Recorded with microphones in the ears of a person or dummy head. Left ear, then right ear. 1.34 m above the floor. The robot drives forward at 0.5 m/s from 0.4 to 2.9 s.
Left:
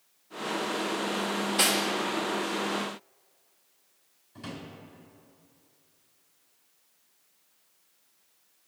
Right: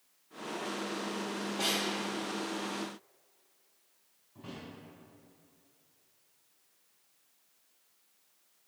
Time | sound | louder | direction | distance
1.6 | cutlery clinking | left 7 dB | 50° left (ahead or behind) | 1.0 m
4.3 | a drawer | left 5 dB | 65° left (ahead or behind) | 2.5 m